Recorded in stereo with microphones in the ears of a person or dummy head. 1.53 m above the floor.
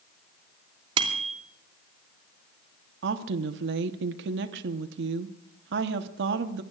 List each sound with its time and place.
1.0 s a bicycle bell: 25° right (ahead or behind), 2.5 m
3.0 s a woman speaking: 70° right (ahead or behind), 1.0 m